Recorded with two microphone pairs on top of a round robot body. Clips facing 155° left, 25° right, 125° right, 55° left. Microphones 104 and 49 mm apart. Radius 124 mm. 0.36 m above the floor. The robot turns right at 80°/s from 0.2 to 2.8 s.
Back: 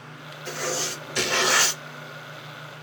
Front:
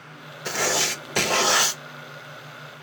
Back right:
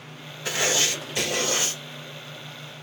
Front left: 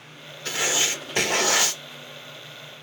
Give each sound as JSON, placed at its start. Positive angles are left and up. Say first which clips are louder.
{"t": 0.5, "sound": "writing", "louder": "front 4 dB, back right 1 dB", "azimuth_deg": -45, "distance_m": 0.7}